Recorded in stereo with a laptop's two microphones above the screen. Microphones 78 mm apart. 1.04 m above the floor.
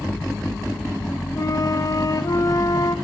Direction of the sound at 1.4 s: 50° left (ahead or behind).